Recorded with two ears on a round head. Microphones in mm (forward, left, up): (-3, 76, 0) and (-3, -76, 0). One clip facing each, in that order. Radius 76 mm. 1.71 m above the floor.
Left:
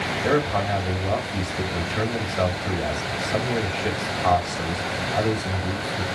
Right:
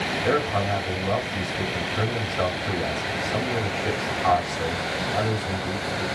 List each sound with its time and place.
0.2 s a man speaking: 45° left (ahead or behind), 3 m